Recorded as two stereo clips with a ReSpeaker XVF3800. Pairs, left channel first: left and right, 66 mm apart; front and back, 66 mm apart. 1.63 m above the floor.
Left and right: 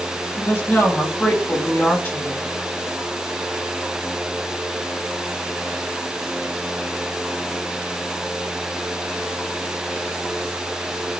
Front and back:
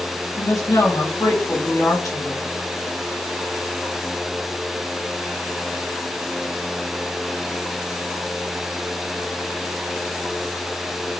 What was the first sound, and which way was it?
A woman speaking, 30° left.